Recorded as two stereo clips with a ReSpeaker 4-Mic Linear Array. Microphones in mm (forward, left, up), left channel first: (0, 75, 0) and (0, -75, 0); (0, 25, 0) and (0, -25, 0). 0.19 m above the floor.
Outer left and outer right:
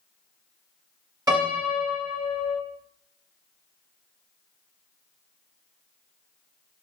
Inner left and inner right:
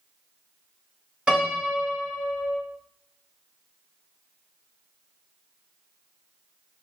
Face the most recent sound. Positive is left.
turn(degrees=-25)  # may be behind; listen again after turning